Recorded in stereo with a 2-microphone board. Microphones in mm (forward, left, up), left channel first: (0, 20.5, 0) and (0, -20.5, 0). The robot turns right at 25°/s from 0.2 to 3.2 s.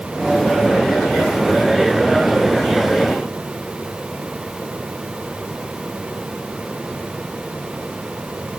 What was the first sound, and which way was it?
Only background noise.